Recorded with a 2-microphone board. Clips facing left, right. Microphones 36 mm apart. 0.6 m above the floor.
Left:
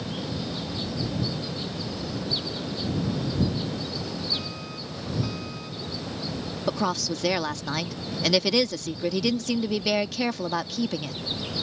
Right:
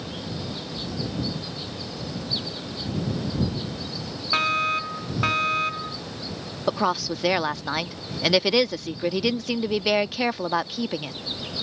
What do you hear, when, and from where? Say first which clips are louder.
4.3 s a fire alarm: right 12 dB; 65° right (ahead or behind)
6.7 s a woman speaking: right 3 dB; 15° right (ahead or behind)